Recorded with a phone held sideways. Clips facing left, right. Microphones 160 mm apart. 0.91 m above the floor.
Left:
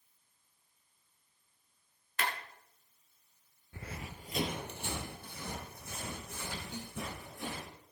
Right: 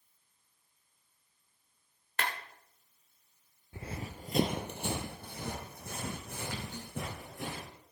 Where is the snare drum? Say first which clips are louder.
Left 1 dB; 15° left (ahead or behind), 3 m.